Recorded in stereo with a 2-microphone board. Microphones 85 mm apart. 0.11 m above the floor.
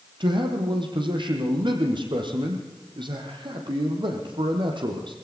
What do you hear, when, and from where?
0.2 s a man speaking: 60° right (ahead or behind), 4.5 m